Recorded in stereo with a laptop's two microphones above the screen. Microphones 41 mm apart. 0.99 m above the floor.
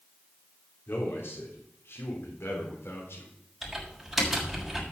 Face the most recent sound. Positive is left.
turn(degrees=-10)  # may be behind; listen again after turning